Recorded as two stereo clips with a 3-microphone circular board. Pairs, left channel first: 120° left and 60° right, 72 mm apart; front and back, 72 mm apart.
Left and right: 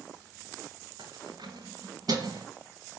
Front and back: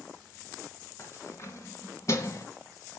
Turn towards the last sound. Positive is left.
turn(degrees=-40)